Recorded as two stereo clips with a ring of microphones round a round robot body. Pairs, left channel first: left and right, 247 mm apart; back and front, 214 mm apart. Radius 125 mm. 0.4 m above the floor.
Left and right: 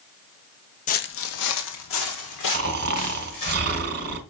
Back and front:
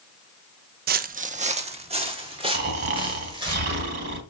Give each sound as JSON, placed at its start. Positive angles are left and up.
{"t": 0.9, "sound": "footsteps", "azimuth_deg": 35, "distance_m": 0.5}
{"t": 2.5, "sound": "snoring", "azimuth_deg": -45, "distance_m": 1.7}